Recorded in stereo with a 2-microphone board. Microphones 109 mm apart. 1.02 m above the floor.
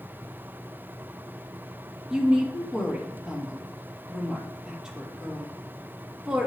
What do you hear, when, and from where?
2.1 s a woman speaking: 5° right (ahead or behind), 2.0 m